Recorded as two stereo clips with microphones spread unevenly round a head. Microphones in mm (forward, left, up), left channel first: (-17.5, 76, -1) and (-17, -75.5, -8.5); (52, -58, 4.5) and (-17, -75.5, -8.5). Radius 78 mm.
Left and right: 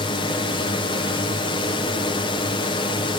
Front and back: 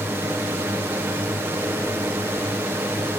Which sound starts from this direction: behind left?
A drone, at 0.0 s.